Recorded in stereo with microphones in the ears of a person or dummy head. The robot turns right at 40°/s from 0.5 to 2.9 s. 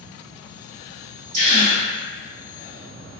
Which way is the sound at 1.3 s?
45° right (ahead or behind).